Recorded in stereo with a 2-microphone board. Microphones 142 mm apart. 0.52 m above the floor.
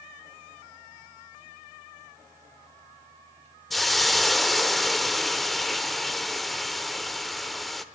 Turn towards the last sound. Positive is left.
turn(degrees=0)  # may be behind; listen again after turning